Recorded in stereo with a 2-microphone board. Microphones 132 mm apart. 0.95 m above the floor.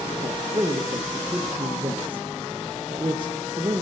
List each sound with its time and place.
0.2 s a man speaking: 35° right (ahead or behind), 0.6 m